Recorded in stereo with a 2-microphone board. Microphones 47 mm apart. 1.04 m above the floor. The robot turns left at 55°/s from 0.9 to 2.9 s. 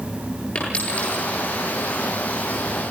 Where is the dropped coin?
30° left (ahead or behind), 9.5 m; by 2.8 s 45° left (ahead or behind), 9.5 m.